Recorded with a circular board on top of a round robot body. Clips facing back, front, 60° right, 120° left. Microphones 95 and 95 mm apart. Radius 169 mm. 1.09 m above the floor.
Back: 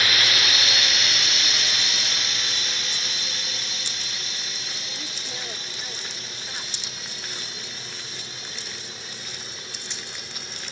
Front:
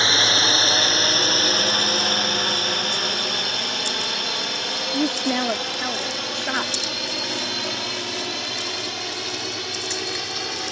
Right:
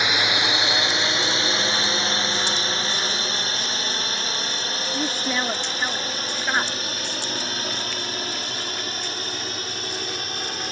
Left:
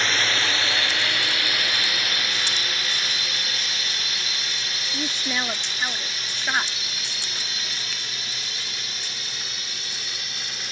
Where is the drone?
5° left; by 10.7 s 15° right.